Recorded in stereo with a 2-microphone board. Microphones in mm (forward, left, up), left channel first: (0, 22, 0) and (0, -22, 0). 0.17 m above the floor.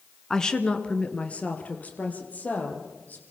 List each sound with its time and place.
0.3 s a woman speaking: 10° left (ahead or behind), 1.6 m; by 3.2 s 35° left (ahead or behind), 6 m